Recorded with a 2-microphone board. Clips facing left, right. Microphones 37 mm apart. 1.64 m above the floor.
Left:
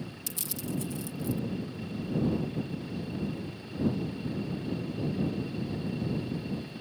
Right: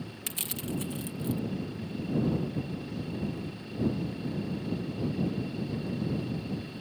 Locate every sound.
0.3 s crushing: 50° right (ahead or behind)